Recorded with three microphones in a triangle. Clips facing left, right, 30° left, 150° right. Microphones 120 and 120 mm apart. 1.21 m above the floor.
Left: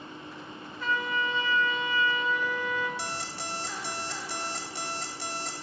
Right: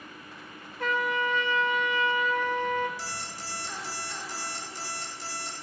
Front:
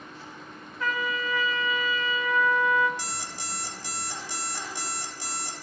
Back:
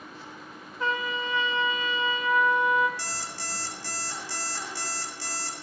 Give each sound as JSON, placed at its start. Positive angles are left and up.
{"t": 0.8, "sound": "a trumpet", "azimuth_deg": -90, "distance_m": 0.8}
{"t": 3.0, "sound": "an alarm clock", "azimuth_deg": 100, "distance_m": 1.7}